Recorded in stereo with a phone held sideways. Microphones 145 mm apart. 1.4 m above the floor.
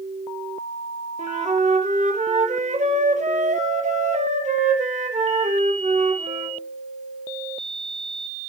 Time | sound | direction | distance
1.2 | a flute | 55° right (ahead or behind) | 1.2 m